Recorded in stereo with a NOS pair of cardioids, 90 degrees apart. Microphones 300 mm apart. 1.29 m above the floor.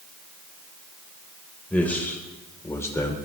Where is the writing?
I don't hear writing.